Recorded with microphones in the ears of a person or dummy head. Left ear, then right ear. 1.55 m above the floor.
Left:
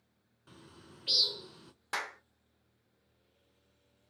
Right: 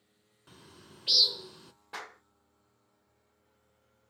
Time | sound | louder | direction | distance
0.5 | a bird | right 1 dB | 10° right (ahead or behind) | 0.6 m
1.9 | a clap | left 6 dB | 45° left (ahead or behind) | 1.1 m